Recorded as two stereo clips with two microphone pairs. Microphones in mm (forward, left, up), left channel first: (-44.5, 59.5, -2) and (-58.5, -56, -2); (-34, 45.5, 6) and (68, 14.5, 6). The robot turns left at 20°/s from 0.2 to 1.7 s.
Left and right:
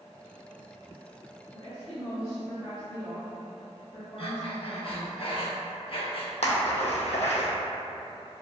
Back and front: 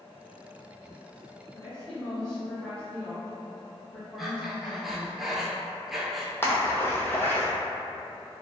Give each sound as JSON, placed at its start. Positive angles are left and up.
{"t": 1.5, "sound": "a woman speaking", "azimuth_deg": 85, "distance_m": 1.6}
{"t": 4.2, "sound": "breathing", "azimuth_deg": 70, "distance_m": 0.5}
{"t": 6.4, "sound": "a splash", "azimuth_deg": 95, "distance_m": 0.7}